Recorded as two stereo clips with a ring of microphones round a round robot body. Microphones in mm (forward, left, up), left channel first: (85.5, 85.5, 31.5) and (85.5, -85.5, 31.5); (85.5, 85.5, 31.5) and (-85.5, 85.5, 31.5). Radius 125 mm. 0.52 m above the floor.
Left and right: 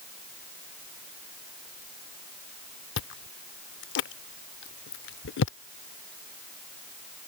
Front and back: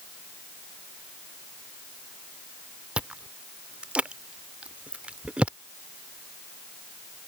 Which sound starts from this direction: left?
Chewing, at 3.0 s.